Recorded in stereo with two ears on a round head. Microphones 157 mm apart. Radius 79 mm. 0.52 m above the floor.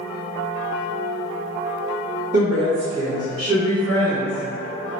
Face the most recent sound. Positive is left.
turn(degrees=-40)  # may be behind; listen again after turning